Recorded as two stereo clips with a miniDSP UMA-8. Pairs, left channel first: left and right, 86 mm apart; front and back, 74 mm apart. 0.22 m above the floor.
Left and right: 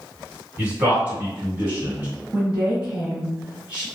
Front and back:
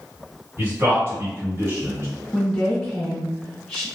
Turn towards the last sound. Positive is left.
turn(degrees=-55)